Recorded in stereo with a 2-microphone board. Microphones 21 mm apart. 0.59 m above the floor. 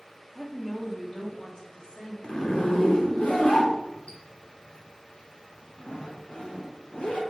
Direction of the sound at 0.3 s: 10° left (ahead or behind).